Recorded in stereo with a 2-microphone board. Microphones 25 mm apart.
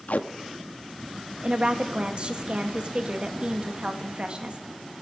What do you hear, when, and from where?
0.1 s tape being pulled: 90° left, 0.6 m
1.4 s a woman speaking: 40° right (ahead or behind), 1.2 m